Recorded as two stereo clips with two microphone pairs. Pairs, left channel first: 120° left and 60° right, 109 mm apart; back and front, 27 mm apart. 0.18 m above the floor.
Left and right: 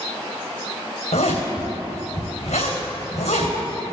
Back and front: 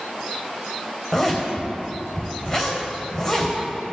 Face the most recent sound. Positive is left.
turn(degrees=120)